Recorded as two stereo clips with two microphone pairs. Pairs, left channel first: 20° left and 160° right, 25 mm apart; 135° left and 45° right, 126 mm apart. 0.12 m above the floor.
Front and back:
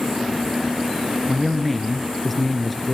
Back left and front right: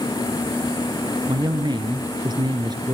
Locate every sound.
1.3 s a man speaking: 70° right, 1.3 m